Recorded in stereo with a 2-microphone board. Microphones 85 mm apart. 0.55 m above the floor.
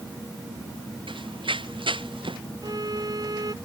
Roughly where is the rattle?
No rattle in this recording.